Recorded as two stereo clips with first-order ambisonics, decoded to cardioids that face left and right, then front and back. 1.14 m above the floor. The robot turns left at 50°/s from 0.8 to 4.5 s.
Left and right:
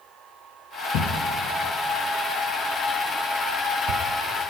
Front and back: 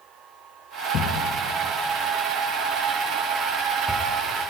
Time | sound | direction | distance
0.9 | a thud | 55° left | 5 m